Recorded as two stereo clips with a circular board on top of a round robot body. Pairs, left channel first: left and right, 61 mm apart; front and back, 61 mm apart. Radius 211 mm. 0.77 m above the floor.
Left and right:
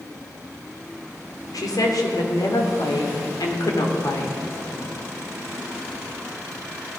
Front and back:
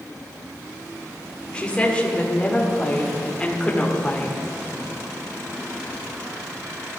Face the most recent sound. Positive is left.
turn(degrees=75)